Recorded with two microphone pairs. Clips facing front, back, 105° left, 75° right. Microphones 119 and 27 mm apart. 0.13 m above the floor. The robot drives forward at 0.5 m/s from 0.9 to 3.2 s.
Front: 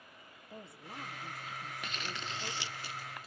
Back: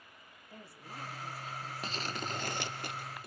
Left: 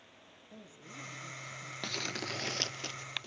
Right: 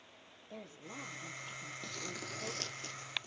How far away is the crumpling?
About 0.7 m.